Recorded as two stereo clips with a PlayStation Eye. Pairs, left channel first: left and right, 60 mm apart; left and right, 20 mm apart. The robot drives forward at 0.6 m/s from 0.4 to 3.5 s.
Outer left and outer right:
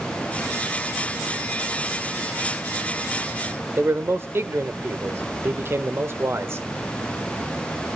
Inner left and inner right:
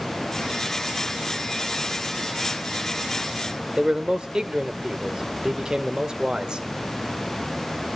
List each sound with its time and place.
3.8 s a man speaking: 40° right (ahead or behind), 1.4 m